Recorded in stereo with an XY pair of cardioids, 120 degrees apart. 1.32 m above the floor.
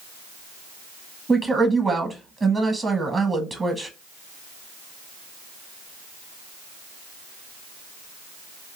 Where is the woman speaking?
20° right, 0.8 m.